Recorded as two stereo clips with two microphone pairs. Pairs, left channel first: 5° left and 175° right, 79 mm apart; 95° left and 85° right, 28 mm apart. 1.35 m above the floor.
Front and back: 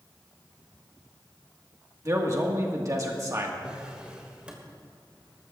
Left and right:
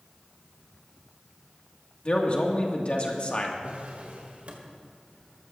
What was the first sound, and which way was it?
A man speaking, 140° left.